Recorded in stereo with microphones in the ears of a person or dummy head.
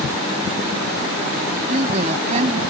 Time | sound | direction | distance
1.7 | a woman speaking | 40° right (ahead or behind) | ?